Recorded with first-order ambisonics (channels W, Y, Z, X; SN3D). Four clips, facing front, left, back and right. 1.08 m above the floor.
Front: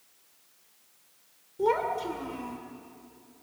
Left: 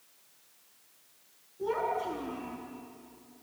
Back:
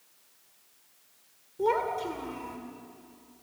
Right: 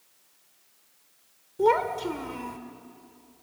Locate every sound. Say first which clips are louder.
1.6 s a child speaking: right 8 dB, front 1 dB; 90° right, 1.9 m